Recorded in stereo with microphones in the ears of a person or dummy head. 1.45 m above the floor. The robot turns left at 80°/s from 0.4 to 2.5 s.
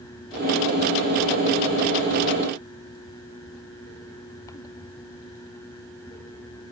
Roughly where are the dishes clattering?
I don't hear dishes clattering.